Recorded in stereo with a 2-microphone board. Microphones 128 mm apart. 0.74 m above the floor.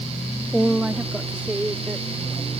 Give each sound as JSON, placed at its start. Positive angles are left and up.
{"t": 0.5, "sound": "a woman speaking", "side_deg": -5}